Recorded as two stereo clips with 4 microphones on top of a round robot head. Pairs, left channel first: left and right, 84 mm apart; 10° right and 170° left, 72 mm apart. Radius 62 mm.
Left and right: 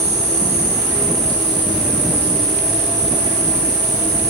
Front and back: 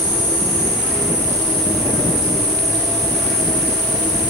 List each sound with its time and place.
0.0 s an insect: 80° right, 7.5 m